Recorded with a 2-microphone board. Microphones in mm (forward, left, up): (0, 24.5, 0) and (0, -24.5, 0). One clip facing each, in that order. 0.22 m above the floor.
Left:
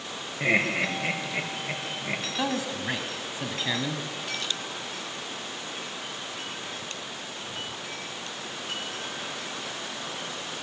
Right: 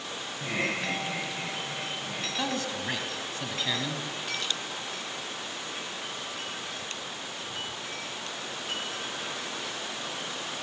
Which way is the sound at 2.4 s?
10° left (ahead or behind).